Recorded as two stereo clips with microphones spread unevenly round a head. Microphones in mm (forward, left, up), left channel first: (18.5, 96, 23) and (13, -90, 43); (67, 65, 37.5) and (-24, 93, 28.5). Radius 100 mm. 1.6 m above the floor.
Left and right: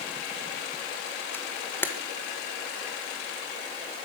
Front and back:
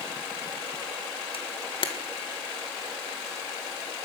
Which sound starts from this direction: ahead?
A camera shutter, at 1.3 s.